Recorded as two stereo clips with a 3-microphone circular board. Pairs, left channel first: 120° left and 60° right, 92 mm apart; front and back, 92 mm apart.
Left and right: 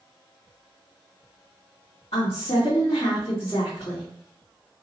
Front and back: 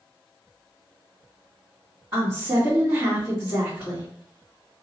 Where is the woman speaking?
120° left, 2 m.